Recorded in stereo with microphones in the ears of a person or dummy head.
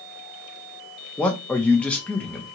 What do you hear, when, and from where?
1.2 s a man speaking: 10° left (ahead or behind), 0.5 m